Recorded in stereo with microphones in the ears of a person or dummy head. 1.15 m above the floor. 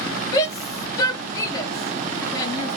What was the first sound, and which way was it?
A shout, 15° left (ahead or behind).